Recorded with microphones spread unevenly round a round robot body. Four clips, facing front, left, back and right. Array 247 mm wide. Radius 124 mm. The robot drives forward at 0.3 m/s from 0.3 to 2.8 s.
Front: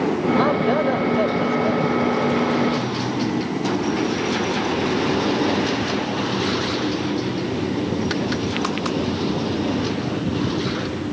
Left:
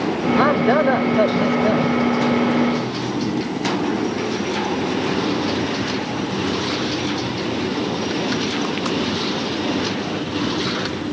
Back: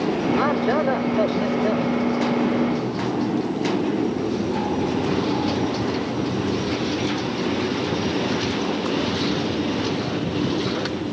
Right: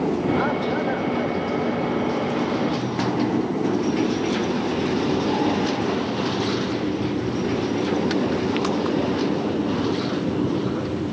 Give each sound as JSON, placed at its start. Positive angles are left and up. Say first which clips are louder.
{"t": 0.4, "sound": "a man speaking", "louder": "left 7 dB, front 3 dB", "azimuth_deg": 80}